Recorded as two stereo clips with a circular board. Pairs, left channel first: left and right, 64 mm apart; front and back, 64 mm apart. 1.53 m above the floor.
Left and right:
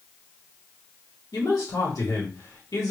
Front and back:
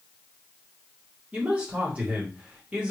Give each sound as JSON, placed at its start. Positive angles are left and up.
{"t": 1.3, "sound": "a man speaking", "azimuth_deg": 110, "distance_m": 1.8}